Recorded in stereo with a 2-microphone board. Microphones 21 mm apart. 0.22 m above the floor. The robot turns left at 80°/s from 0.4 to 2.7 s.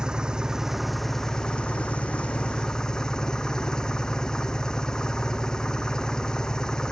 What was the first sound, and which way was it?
An engine running, 140° right.